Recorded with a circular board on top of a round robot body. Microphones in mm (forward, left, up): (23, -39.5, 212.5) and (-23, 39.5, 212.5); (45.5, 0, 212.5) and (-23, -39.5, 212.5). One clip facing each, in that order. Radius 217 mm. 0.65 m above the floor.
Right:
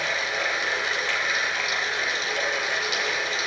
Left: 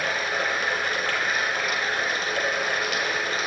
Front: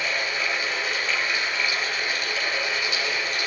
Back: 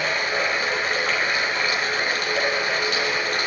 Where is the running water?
165° left, 4.5 m.